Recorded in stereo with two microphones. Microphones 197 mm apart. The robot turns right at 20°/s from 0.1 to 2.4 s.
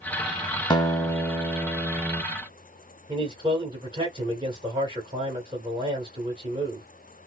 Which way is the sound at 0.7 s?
155° left.